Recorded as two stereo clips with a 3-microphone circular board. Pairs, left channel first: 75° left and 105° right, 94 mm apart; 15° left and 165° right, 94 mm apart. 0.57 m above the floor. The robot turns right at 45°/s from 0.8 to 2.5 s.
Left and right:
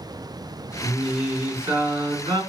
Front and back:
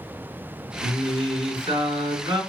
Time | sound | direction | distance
0.8 | singing | 155° left | 2 m